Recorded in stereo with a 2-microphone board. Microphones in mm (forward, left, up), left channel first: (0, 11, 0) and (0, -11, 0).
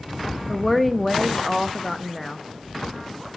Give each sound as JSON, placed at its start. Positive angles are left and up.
{"t": 0.5, "sound": "a woman speaking", "side_deg": 5, "distance_m": 0.8}